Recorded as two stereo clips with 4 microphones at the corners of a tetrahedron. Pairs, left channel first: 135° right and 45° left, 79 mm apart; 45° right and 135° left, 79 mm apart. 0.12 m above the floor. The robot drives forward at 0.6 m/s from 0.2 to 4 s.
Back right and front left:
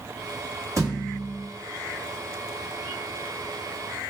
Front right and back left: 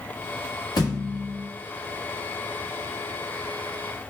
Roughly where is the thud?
Ahead.